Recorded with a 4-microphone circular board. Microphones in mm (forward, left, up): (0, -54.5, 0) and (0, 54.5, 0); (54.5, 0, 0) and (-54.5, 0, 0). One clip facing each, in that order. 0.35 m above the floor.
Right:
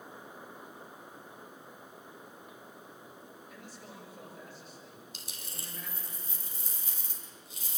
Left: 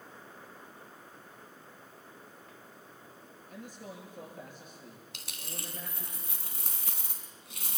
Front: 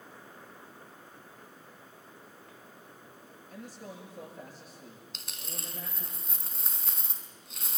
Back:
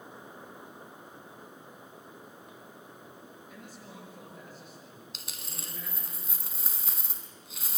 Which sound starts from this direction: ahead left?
A man speaking, at 3.5 s.